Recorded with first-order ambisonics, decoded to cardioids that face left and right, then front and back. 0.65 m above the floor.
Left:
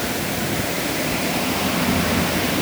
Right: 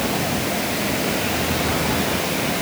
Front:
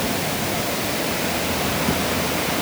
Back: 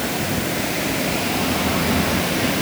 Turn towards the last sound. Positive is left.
No sound to turn to.